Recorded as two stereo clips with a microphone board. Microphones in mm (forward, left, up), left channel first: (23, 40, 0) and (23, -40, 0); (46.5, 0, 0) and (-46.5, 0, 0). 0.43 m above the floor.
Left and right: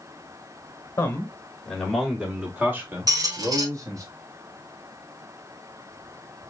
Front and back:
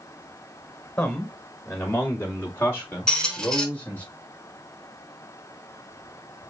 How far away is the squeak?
About 1.1 m.